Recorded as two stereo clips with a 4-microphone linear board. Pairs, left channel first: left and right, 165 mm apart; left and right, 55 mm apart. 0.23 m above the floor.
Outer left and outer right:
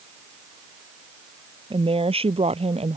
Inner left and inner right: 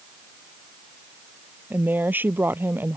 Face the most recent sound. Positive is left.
turn(degrees=-40)  # may be behind; listen again after turning